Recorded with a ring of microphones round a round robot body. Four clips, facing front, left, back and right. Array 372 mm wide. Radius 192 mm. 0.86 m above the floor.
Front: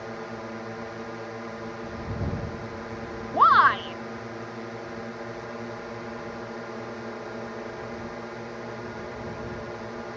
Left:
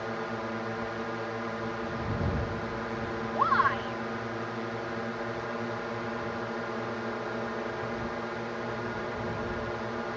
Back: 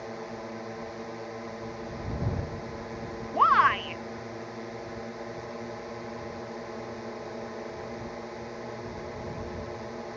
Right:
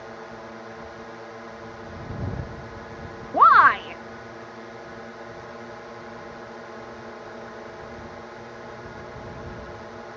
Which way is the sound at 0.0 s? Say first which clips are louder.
Left 5 dB, front 2 dB; 65° left.